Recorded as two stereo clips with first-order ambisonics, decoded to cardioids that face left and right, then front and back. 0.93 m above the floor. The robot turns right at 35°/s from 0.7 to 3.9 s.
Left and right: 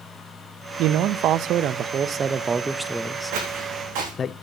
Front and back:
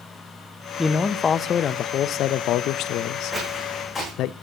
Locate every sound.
0.8 s a man speaking: 80° right, 0.5 m; by 4.3 s 30° left, 0.5 m
3.3 s footsteps: 100° right, 4.5 m; by 4.1 s 80° right, 4.5 m